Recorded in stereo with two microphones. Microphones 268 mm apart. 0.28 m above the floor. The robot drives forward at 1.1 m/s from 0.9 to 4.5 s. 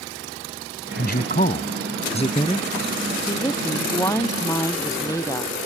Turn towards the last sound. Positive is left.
turn(degrees=10)  # may be behind; listen again after turning